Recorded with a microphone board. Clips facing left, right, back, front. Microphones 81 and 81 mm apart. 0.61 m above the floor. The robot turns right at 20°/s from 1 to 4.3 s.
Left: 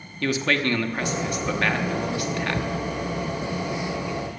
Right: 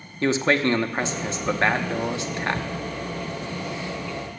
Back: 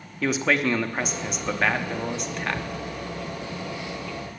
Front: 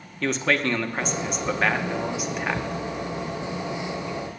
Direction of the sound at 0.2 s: 105° right.